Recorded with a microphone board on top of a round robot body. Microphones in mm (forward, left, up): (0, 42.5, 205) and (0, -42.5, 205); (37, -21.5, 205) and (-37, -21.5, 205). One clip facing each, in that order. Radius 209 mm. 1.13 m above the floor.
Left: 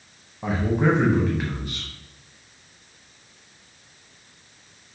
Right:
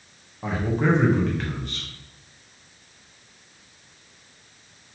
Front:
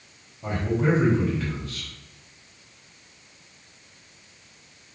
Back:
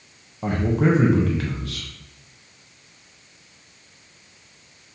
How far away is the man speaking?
About 1.0 m.